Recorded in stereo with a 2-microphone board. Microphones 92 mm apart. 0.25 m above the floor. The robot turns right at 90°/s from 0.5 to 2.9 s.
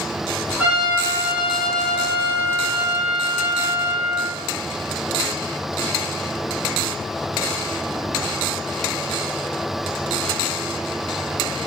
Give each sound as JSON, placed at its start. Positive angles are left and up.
{"t": 0.6, "sound": "a trumpet", "azimuth_deg": -20, "distance_m": 4.0}